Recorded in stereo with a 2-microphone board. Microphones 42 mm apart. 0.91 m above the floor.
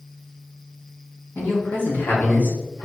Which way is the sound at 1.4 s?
55° left (ahead or behind).